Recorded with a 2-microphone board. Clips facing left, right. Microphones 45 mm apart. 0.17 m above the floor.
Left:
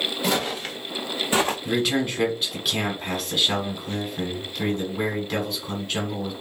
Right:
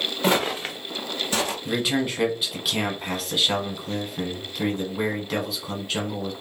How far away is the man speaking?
About 1.2 m.